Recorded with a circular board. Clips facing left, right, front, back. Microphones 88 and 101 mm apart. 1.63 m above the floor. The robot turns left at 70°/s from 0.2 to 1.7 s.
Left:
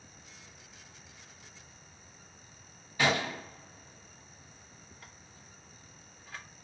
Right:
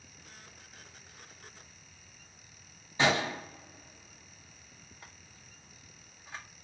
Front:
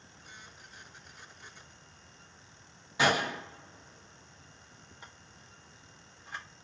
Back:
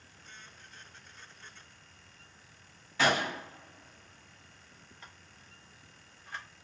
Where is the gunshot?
55° right, 0.9 m.